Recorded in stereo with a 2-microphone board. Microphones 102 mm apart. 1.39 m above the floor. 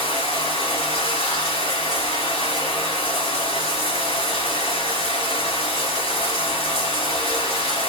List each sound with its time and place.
0.0 s running water: 75° left (ahead or behind), 2.5 m